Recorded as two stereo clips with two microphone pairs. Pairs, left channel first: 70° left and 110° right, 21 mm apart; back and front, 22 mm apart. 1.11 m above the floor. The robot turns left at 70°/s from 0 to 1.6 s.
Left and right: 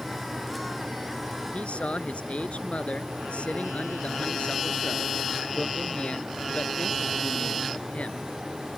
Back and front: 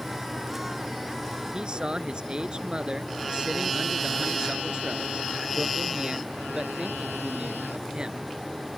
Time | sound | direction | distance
1.5 | a man speaking | 55° left | ?